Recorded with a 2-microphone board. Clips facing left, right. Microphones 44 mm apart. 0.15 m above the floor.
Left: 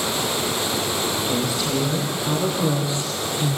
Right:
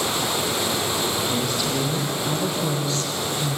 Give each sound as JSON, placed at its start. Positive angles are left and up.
{"t": 1.2, "sound": "a woman speaking", "side_deg": 5, "distance_m": 6.5}